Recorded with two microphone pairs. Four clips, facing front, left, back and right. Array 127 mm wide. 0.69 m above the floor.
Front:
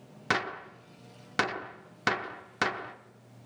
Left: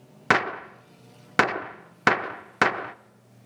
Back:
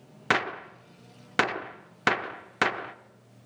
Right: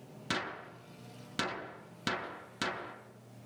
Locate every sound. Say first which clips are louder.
0.3 s a gunshot: left 15 dB, back 4 dB; 110° left, 0.6 m